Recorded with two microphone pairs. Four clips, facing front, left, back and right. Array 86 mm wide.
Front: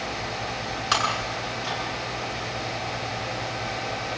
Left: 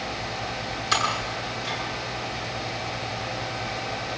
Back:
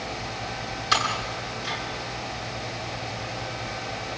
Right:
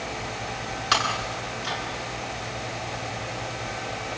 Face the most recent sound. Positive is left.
turn(degrees=-45)